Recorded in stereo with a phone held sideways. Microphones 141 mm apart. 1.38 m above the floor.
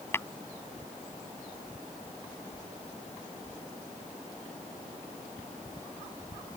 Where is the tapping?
15° left (ahead or behind).